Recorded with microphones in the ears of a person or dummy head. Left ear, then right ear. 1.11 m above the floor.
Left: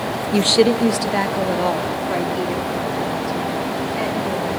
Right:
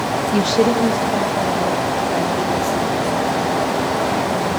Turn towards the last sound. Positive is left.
turn(degrees=85)